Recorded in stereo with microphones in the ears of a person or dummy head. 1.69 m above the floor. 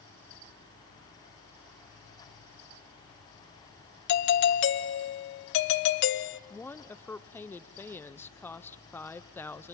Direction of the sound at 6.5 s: 10° left (ahead or behind).